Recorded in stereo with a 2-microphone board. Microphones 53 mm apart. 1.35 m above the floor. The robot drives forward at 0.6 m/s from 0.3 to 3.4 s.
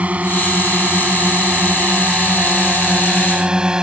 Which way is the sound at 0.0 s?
25° right (ahead or behind).